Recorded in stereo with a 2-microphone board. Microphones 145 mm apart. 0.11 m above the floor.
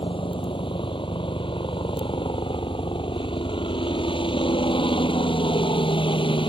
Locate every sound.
0.0 s a helicopter: 40° left (ahead or behind)